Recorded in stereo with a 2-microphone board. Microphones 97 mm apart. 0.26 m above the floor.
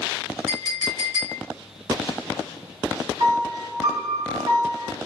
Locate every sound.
0.5 s a clink: 40° right (ahead or behind), 1.6 m
3.2 s a piano: 55° right (ahead or behind), 1.9 m